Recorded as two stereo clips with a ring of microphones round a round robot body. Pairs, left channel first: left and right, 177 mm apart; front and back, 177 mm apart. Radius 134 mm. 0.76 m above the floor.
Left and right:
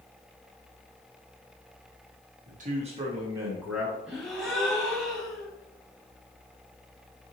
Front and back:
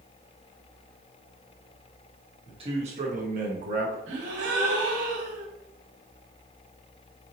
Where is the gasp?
175° right, 1.1 m.